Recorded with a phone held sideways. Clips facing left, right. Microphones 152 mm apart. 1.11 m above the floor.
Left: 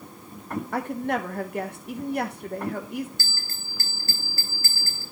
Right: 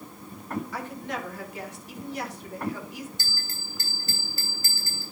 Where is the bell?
20° right (ahead or behind), 3 m.